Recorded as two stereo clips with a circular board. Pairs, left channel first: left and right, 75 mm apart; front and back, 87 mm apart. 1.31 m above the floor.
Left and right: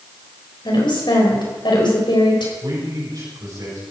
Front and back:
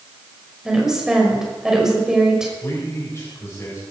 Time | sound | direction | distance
0.7 | a woman speaking | 95° left | 6 m
2.6 | a man speaking | 60° right | 6 m